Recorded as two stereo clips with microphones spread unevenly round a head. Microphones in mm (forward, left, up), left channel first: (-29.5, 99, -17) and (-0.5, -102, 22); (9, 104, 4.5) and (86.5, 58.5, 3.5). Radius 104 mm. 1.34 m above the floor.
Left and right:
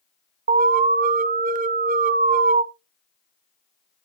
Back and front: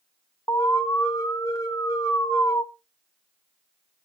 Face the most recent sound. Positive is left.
turn(degrees=-135)